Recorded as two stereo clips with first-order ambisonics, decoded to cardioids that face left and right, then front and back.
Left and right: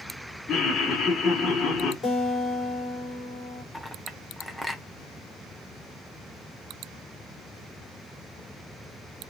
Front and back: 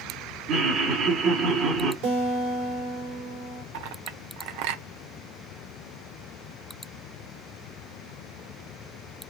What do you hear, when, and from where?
0.5 s laughter: 155° left, 1.6 m
2.0 s a guitar: 160° left, 2 m
3.7 s a clink: straight behind, 0.7 m